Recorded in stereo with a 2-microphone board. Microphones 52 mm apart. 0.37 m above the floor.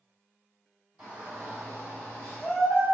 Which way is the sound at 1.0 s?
20° right (ahead or behind).